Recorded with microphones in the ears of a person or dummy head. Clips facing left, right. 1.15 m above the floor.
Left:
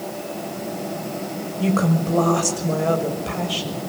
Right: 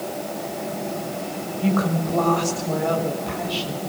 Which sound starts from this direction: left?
A woman speaking, at 1.6 s.